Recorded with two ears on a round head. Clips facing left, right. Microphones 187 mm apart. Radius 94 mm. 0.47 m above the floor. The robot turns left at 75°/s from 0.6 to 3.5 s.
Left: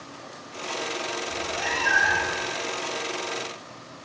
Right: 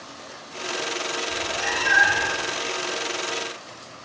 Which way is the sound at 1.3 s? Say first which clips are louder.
Right 1 dB; 60° left.